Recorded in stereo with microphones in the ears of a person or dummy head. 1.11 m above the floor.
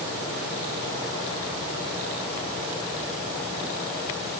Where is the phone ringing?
I don't hear a phone ringing.